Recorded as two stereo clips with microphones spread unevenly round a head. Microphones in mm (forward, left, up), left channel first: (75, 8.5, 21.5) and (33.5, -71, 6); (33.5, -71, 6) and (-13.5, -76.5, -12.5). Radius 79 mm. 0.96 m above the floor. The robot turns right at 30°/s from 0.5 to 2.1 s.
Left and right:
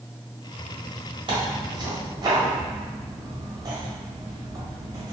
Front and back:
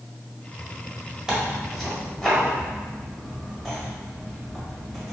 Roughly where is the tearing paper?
Right.